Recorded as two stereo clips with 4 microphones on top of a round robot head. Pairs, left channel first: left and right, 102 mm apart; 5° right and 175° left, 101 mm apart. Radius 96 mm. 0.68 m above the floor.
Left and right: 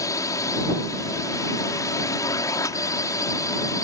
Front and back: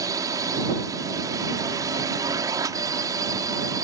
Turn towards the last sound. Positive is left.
turn(degrees=135)